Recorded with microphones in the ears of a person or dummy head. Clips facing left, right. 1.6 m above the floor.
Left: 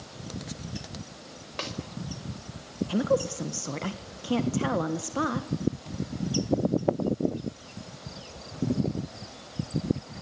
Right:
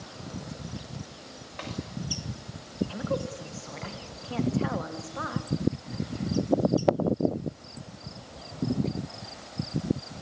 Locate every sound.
1.6 s a snare drum: 55° left (ahead or behind), 6.5 m
2.9 s a woman speaking: 50° left (ahead or behind), 1.6 m